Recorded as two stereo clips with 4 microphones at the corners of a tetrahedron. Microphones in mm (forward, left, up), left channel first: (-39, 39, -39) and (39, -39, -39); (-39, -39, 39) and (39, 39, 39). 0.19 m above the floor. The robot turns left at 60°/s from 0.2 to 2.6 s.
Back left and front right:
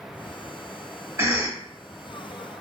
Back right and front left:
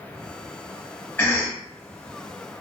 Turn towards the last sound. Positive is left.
turn(degrees=-165)